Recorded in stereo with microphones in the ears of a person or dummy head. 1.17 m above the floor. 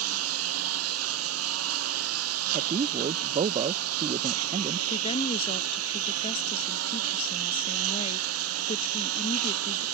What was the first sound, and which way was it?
A lawn mower, 90° right.